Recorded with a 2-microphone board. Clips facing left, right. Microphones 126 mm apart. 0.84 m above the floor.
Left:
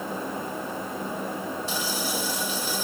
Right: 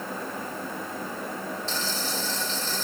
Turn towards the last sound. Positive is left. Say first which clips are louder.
# left 2 dB
turn(degrees=10)  # may be behind; listen again after turning